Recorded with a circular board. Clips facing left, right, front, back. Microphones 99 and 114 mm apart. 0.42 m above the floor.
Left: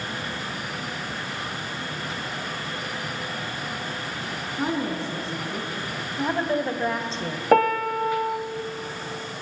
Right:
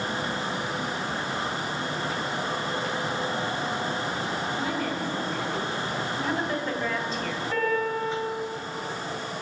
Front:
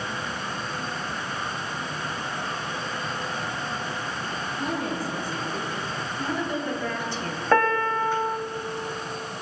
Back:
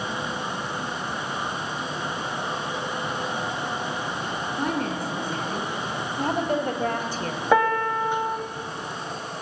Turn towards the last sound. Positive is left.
turn(degrees=100)